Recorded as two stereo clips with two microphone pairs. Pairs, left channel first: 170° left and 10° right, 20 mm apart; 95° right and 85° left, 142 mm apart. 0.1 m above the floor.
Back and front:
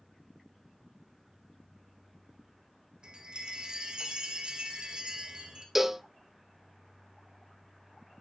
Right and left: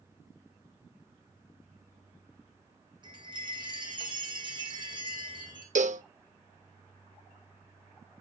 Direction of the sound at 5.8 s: 65° left.